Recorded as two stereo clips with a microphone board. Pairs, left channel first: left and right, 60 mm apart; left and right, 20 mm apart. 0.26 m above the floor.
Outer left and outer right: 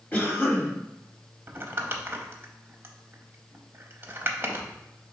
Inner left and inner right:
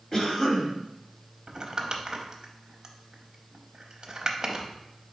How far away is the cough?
About 1.1 m.